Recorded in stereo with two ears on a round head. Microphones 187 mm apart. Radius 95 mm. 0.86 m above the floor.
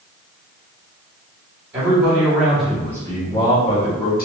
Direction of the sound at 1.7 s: 15° right (ahead or behind).